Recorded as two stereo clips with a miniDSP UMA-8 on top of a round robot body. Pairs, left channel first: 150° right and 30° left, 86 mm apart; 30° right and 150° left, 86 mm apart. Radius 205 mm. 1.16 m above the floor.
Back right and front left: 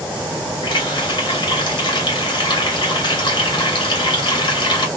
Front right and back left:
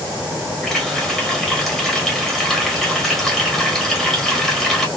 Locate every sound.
0.6 s a running tap: 120° right, 1.1 m